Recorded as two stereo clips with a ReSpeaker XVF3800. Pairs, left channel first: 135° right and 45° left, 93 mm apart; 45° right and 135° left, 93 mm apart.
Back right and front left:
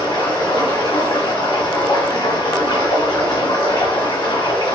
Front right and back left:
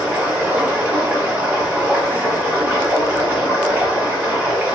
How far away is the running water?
About 1.6 m.